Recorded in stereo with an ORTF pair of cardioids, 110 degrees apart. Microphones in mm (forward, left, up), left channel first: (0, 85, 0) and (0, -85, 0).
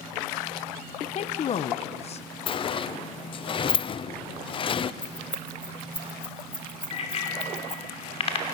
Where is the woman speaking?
45° left, 0.9 m.